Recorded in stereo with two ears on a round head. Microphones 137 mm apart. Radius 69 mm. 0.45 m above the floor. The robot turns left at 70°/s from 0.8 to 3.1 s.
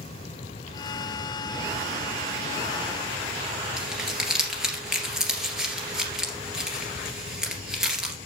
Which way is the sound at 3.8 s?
5° right (ahead or behind).